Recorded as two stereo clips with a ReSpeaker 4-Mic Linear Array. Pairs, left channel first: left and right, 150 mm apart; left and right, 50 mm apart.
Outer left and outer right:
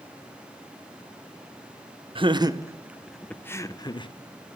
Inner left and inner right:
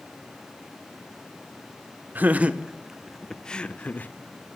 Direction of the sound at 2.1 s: 35° right (ahead or behind).